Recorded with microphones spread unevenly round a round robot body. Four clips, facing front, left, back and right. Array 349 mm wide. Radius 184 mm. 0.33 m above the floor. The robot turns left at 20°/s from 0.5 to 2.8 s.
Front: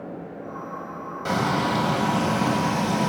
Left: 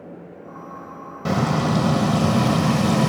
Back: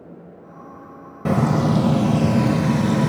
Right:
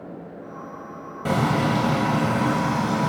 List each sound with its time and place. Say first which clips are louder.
1.2 s frying: even, back 4 dB; 170° left, 1.1 m; by 3.1 s 140° left, 1.1 m